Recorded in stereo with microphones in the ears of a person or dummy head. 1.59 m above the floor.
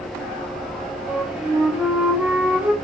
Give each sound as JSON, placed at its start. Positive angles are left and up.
{"t": 1.1, "sound": "a flute", "side_deg": -5, "distance_m": 2.5}